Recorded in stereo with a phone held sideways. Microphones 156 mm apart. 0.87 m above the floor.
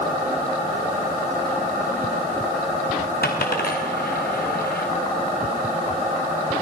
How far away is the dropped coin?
About 4.5 m.